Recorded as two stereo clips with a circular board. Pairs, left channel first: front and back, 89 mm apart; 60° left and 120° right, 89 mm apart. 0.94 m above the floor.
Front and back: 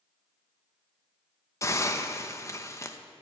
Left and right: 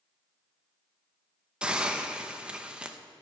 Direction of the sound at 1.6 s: 45° right.